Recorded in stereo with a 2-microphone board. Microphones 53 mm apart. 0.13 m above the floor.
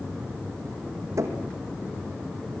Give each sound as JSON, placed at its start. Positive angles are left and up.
{"t": 1.2, "sound": "knocking", "side_deg": -75, "distance_m": 4.5}